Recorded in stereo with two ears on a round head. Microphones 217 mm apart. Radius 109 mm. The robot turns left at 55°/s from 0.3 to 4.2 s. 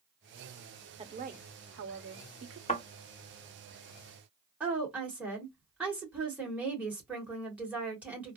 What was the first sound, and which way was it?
A woman speaking, 25° right.